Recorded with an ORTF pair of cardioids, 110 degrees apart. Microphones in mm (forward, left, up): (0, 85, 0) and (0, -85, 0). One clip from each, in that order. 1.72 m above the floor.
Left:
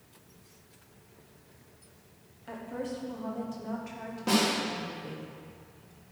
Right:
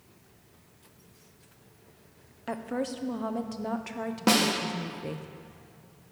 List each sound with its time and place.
2.5 s a woman speaking: 50° right, 0.9 m
4.3 s a snare drum: 60° right, 1.6 m